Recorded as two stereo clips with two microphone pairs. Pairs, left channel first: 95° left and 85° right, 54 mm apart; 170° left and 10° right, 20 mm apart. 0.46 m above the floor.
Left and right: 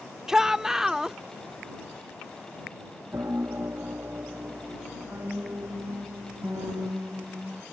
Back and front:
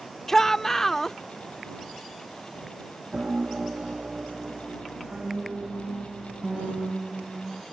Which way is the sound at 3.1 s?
45° right.